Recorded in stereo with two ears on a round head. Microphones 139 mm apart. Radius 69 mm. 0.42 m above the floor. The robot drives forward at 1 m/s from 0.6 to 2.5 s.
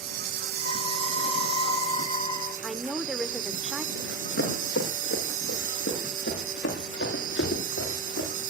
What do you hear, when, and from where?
0.0 s an insect: 70° right (ahead or behind), 1.9 m; by 8.5 s 55° right (ahead or behind), 2 m
2.6 s a woman speaking: 10° right (ahead or behind), 1.0 m
4.0 s running footsteps: 85° left, 7 m